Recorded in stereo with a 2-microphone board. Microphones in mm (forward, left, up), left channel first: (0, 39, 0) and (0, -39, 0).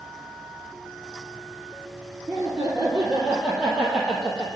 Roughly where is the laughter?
Right.